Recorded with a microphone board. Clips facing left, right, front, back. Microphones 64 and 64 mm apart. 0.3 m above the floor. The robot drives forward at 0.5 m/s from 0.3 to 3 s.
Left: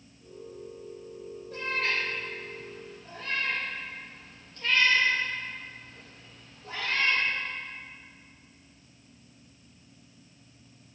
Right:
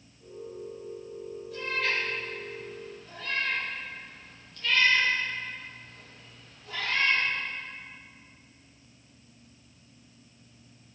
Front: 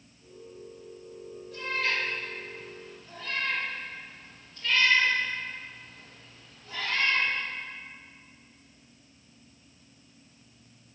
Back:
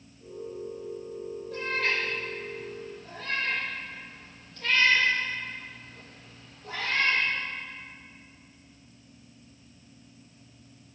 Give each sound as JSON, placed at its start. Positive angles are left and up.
{"t": 1.5, "sound": "a cat meowing", "azimuth_deg": 145, "distance_m": 5.5}